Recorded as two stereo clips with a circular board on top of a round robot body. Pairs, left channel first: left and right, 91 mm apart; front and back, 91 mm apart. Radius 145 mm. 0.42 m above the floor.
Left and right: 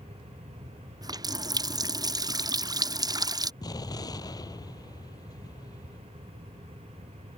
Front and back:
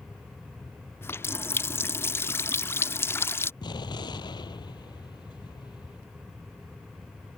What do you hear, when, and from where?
1.0 s a running tap: 60° right
3.6 s an explosion: 40° left